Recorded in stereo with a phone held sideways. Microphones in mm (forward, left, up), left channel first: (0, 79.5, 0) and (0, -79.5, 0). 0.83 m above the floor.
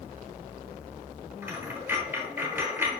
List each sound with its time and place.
1.4 s a dropped coin: 15° right (ahead or behind), 1.1 m